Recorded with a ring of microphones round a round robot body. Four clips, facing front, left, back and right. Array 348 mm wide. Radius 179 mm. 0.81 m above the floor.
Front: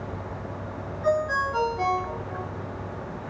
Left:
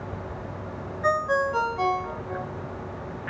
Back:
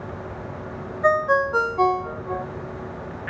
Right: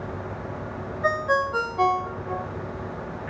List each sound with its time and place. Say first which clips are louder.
1.0 s a ringtone: even, back 5 dB; 165° right, 0.9 m